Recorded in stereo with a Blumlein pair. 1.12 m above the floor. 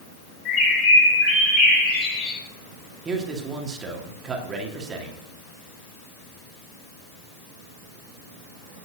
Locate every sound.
0.5 s a bird: 35° left, 5 m
3.0 s a man speaking: 20° right, 2 m